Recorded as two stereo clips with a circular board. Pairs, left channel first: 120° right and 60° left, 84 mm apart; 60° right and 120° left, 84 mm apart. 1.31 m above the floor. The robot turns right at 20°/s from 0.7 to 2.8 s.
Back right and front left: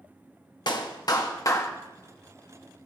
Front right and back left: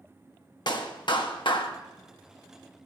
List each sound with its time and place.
0.7 s a clap: 90° right, 1.4 m; by 1.7 s 70° right, 1.4 m